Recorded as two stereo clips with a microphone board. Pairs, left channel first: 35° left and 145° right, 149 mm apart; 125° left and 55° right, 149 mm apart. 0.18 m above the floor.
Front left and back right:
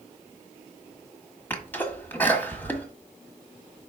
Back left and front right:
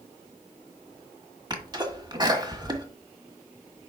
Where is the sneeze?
30° right, 1.4 m.